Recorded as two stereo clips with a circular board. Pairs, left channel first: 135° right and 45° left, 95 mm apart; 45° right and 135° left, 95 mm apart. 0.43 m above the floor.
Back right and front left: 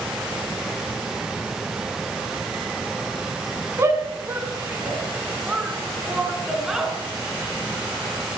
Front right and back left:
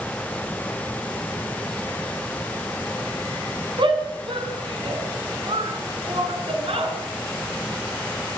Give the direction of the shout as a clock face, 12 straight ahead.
8 o'clock.